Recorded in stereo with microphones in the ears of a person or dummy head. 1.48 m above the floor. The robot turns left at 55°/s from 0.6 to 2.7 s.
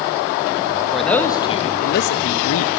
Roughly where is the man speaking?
Behind.